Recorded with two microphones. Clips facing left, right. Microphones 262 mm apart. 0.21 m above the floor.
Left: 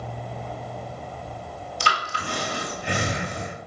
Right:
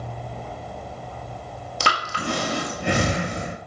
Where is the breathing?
70° right (ahead or behind), 0.7 m.